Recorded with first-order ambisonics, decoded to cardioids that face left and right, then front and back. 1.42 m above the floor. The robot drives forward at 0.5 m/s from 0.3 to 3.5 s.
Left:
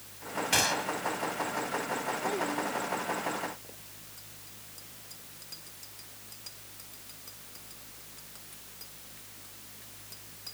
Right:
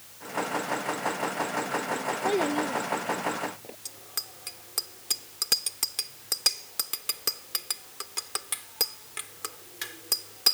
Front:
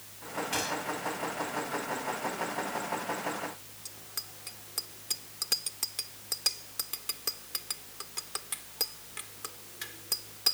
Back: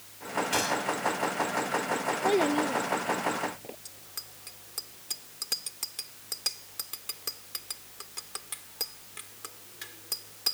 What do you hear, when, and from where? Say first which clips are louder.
0.5 s a gunshot: left 6 dB, back 4 dB; 105° left
2.2 s a child speaking: right 8 dB, back 8 dB; 150° right; by 3.8 s 155° right
3.9 s a bicycle bell: right 12 dB, front 2 dB; 85° right